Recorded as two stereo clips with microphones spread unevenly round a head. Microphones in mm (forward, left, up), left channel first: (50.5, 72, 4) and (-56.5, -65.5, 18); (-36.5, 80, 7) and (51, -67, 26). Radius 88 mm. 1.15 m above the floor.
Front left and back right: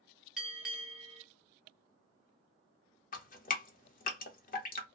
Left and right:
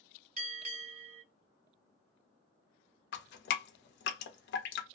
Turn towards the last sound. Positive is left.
turn(degrees=95)